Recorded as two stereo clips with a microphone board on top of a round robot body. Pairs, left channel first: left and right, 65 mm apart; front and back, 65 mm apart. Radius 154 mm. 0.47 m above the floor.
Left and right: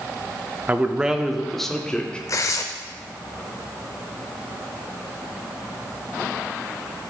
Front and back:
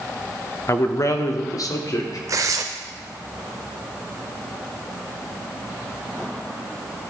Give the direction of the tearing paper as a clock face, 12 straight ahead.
8 o'clock.